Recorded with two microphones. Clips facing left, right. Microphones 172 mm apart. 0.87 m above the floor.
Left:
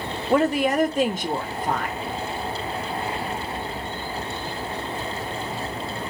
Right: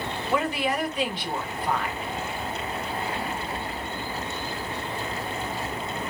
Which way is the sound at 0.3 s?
45° left (ahead or behind).